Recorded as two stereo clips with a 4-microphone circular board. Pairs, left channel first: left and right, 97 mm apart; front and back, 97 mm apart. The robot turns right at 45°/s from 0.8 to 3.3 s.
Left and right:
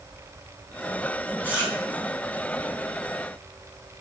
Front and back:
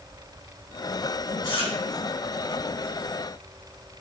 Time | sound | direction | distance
1.4 | chewing | 20° right | 4 m